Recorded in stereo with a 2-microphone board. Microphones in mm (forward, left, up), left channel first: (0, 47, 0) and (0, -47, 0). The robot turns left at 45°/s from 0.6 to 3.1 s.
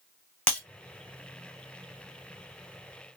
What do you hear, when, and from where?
0.5 s breaking glass: 10° left (ahead or behind), 1.1 m